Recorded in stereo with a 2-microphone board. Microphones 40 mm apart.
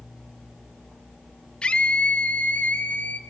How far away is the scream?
About 1.0 m.